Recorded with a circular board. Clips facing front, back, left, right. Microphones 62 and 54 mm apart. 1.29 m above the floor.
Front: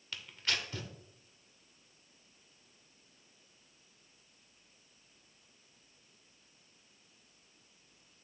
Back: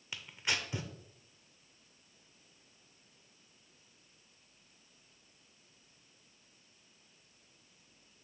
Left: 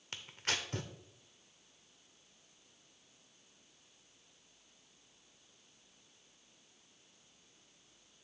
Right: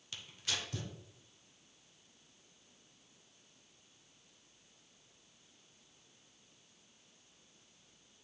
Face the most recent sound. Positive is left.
turn(degrees=115)